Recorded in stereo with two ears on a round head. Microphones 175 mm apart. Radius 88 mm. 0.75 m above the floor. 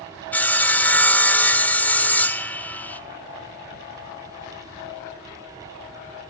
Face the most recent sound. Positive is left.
turn(degrees=10)  # may be behind; listen again after turning